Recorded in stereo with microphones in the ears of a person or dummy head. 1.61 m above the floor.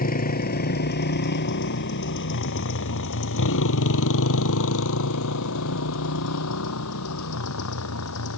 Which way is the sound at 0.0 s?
40° left (ahead or behind).